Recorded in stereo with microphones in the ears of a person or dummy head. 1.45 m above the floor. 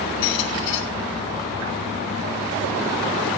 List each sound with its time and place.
0.2 s a squeak: 60° left (ahead or behind), 1.6 m